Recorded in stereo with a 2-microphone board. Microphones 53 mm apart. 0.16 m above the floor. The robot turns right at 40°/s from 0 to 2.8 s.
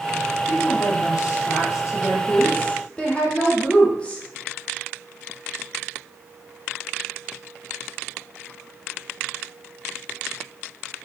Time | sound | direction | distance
0.5 | a woman speaking | 70° left | 6.5 m